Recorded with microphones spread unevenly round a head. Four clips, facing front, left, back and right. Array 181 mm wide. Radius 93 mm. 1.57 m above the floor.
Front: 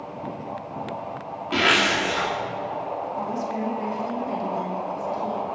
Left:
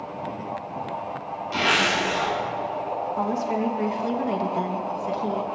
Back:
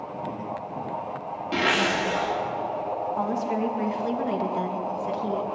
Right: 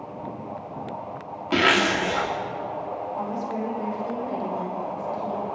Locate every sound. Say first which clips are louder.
1.5 s a zipper: right 3 dB, front 2 dB; 80° right, 2.5 m
3.2 s a woman speaking: left 5 dB, back 3 dB; 120° left, 2.5 m